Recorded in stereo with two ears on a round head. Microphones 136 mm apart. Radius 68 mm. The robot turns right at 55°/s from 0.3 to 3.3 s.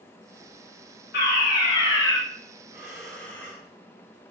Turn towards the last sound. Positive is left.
turn(degrees=10)